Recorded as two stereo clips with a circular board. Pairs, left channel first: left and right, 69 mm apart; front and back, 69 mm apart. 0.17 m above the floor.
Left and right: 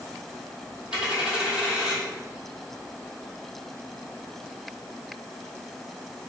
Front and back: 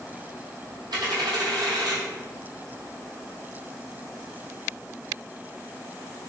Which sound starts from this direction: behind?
A dropped coin, at 0.9 s.